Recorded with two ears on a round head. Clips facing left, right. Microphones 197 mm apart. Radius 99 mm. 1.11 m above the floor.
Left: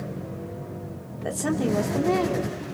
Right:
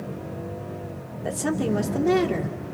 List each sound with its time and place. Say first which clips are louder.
1.2 s a woman speaking: even; centre (ahead or behind), 3 m; by 2.6 s 30° right (ahead or behind), 3 m